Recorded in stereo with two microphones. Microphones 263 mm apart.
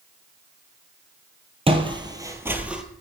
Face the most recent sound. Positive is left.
turn(degrees=-5)  # may be behind; listen again after turning